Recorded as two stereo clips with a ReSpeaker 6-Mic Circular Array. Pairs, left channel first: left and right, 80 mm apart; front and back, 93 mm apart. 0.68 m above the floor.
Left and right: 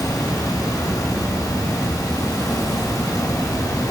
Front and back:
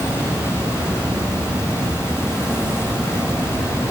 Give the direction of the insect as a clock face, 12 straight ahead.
7 o'clock.